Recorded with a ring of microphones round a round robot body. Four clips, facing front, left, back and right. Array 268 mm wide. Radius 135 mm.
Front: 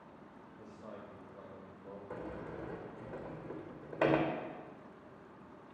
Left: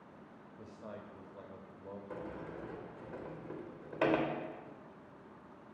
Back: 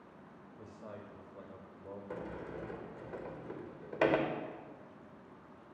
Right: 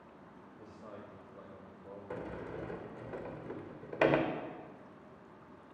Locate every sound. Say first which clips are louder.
0.6 s a man speaking: left 2 dB, back 1 dB; 125° left, 1.0 m
2.1 s a sliding door: right 4 dB, even; 115° right, 0.7 m